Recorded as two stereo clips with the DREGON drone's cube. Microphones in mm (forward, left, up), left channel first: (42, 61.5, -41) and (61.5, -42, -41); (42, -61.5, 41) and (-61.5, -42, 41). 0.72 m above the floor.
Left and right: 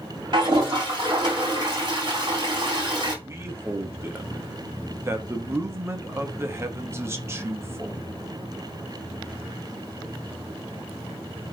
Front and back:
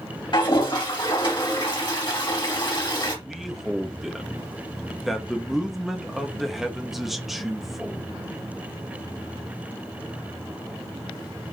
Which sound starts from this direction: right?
A man speaking, at 3.2 s.